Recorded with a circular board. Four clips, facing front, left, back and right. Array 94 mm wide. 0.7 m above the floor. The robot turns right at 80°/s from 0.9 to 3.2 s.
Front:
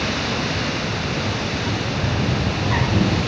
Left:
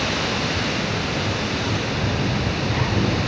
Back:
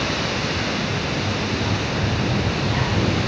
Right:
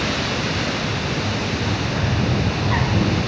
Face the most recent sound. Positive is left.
turn(degrees=-15)